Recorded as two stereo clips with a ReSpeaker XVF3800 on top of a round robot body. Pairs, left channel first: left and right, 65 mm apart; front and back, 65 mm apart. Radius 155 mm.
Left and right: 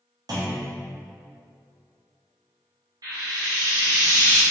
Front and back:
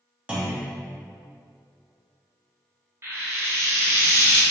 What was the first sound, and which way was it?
A clunk, 105° right.